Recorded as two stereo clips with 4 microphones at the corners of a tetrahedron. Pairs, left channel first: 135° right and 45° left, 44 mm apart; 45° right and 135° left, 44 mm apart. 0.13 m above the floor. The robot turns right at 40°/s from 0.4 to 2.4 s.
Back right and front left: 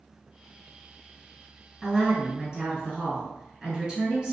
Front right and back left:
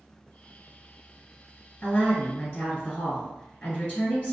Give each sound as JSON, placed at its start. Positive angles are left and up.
{"t": 1.8, "sound": "a woman speaking", "azimuth_deg": -25, "distance_m": 1.8}